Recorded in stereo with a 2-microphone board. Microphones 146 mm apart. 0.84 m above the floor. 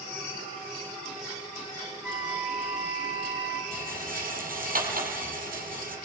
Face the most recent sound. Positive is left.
turn(degrees=-75)  # may be behind; listen again after turning